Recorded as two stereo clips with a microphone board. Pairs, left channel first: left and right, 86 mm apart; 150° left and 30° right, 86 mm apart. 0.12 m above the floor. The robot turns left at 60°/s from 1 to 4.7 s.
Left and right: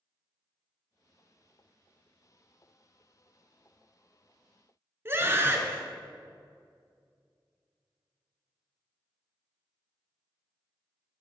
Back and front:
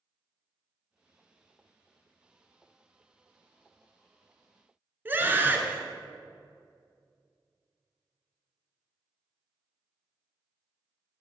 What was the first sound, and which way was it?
A scream, 70° right.